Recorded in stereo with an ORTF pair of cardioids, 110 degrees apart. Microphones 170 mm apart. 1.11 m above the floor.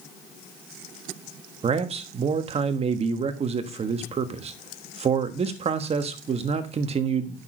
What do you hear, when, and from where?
1.6 s a man speaking: 35° right, 1.3 m